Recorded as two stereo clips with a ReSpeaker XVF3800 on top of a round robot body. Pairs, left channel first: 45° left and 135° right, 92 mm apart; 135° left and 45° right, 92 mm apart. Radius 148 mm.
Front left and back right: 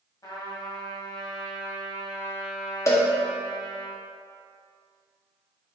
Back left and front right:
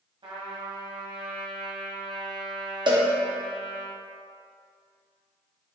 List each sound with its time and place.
0.2 s a trumpet: 10° right, 1.7 m
2.9 s a cowbell: 15° right, 1.7 m